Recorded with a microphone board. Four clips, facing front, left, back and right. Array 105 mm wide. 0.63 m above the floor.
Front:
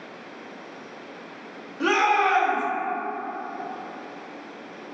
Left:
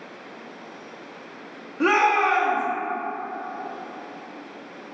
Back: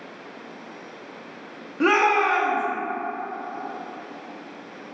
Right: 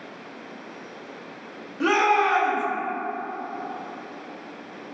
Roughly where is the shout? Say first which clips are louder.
Left 1 dB, back 2 dB; behind left.